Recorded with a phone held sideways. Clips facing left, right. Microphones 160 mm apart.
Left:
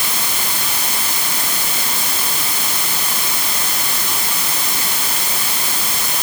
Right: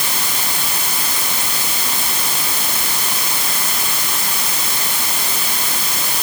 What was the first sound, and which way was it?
Only background noise.